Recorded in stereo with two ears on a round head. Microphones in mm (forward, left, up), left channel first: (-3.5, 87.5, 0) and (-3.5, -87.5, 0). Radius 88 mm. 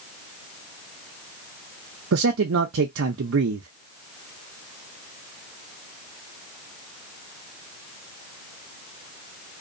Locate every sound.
2.1 s a man speaking: 75° right (ahead or behind), 0.5 m